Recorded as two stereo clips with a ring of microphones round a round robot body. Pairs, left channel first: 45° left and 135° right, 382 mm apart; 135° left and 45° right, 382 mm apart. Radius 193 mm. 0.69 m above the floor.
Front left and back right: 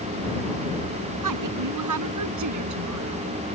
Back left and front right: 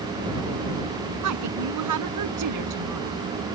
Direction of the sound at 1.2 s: 90° right.